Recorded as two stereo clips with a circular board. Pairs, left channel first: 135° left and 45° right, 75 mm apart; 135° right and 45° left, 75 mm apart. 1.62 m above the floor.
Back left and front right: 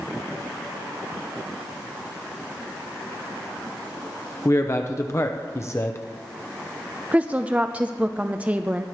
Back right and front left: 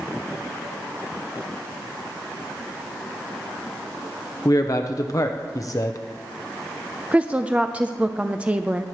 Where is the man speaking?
175° right, 0.8 m.